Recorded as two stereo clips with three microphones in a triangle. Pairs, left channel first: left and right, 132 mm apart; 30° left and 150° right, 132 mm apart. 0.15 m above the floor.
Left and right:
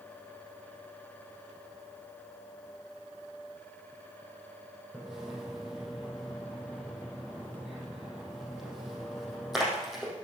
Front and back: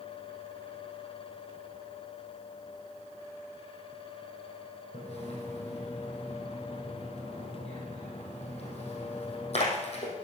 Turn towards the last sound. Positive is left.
turn(degrees=0)